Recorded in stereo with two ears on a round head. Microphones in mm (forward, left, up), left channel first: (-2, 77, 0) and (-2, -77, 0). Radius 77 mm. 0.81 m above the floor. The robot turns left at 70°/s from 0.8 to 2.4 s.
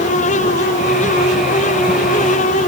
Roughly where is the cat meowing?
I don't hear a cat meowing.